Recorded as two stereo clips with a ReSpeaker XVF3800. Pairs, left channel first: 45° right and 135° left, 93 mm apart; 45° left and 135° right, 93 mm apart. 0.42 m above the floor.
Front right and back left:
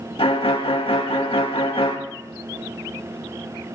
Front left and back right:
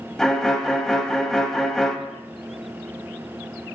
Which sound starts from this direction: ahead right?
A violin, at 0.2 s.